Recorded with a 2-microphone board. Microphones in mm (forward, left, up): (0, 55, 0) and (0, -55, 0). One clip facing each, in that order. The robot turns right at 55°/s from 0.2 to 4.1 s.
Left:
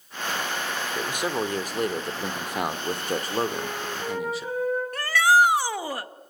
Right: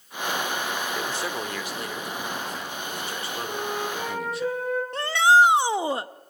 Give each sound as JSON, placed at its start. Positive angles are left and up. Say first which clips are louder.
{"t": 0.9, "sound": "a man speaking", "louder": "left 2 dB", "azimuth_deg": 5, "distance_m": 2.0}
{"t": 3.5, "sound": "a flute", "louder": "right 2 dB", "azimuth_deg": -145, "distance_m": 7.5}
{"t": 4.9, "sound": "a shout", "louder": "right 2 dB", "side_deg": -25, "distance_m": 0.7}